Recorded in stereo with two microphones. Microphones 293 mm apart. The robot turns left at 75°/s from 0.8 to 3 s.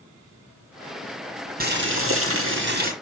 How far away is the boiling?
About 2.5 m.